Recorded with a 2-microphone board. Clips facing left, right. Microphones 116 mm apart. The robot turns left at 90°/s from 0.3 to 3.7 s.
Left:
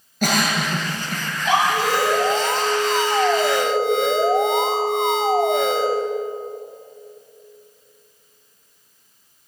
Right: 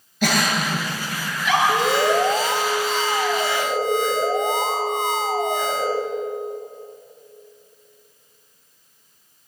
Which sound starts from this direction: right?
An alarm, at 1.7 s.